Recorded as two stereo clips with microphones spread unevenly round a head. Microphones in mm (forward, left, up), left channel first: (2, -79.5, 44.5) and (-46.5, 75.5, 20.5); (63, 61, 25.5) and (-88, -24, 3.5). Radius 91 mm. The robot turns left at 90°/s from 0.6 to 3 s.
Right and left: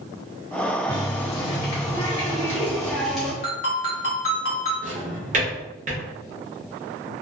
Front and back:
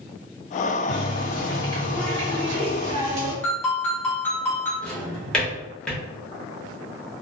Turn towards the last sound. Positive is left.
turn(degrees=95)